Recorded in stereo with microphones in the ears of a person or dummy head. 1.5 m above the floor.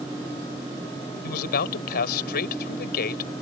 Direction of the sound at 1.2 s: 55° left (ahead or behind).